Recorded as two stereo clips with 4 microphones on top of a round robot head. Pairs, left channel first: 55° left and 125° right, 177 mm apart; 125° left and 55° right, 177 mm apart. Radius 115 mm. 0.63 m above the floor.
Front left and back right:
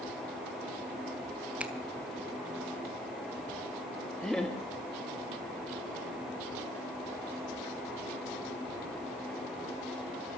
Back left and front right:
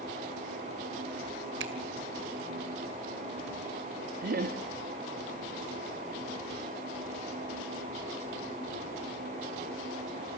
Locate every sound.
1.6 s a finger snap: 40° right, 2.0 m
4.2 s laughter: 30° right, 1.4 m